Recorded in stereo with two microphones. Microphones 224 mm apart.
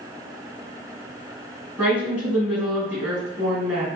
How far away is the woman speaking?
About 1.9 m.